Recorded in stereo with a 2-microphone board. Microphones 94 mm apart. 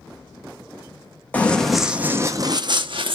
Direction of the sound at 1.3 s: 15° left (ahead or behind).